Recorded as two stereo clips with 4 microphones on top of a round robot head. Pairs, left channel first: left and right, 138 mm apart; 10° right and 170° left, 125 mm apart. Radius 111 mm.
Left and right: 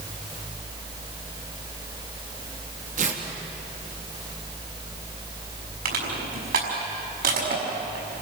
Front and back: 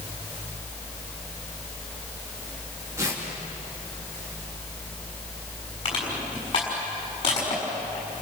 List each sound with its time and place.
3.0 s tearing paper: 115° right, 3 m
5.8 s crushing: 70° right, 6 m